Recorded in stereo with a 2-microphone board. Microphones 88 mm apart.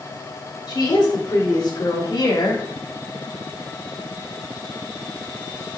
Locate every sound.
0.7 s a woman speaking: 55° left (ahead or behind), 4.5 m; by 2.6 s 50° left (ahead or behind), 2 m